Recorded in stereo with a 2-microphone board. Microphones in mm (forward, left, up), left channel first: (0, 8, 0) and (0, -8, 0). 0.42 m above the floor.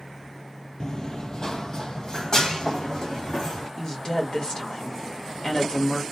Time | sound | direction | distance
0.8 | running footsteps | 45° left (ahead or behind) | 0.7 m
3.8 | a woman speaking | 40° left (ahead or behind) | 1.5 m